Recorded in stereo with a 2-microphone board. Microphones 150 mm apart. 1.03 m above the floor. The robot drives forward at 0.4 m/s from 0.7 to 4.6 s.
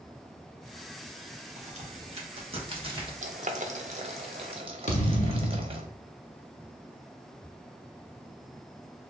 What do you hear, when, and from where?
1.6 s a crack: 50° right (ahead or behind), 1.0 m; by 3.1 s 35° right (ahead or behind), 1.3 m
3.2 s boiling: 55° right (ahead or behind), 0.7 m; by 5.8 s 40° right (ahead or behind), 0.9 m
4.9 s a thud: 55° left (ahead or behind), 0.9 m